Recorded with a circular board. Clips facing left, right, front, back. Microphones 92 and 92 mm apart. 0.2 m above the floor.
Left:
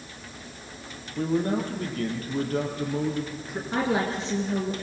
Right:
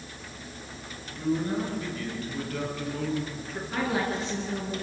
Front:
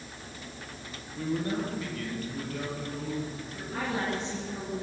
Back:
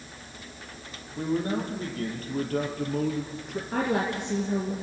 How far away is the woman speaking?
About 3 m.